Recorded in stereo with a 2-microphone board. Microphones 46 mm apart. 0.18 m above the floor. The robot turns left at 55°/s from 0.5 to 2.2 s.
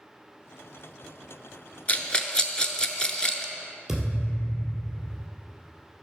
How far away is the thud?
About 2 m.